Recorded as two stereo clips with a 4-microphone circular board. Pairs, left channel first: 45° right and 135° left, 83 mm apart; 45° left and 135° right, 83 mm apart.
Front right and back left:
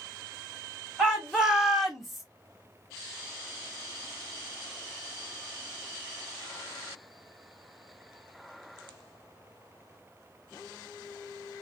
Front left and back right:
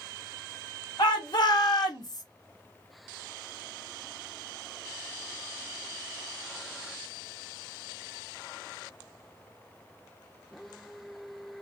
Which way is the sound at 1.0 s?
55° left.